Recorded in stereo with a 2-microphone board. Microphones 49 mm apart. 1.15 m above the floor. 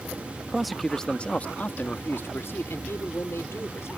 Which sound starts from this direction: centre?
A man speaking, at 0.5 s.